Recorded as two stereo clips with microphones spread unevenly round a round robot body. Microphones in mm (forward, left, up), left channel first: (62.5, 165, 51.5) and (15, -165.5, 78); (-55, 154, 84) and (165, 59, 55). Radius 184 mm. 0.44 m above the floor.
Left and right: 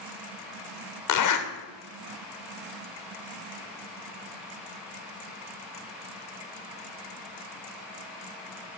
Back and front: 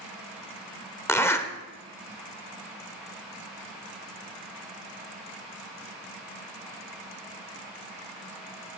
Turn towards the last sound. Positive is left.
turn(degrees=75)